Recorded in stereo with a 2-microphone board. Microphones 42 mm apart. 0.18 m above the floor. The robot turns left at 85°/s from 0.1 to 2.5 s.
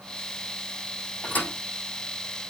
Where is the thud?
30° left (ahead or behind), 4.5 m; by 1.5 s 55° left (ahead or behind), 4.5 m.